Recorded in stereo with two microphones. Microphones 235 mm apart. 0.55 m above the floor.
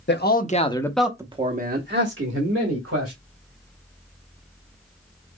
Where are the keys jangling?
I don't hear keys jangling.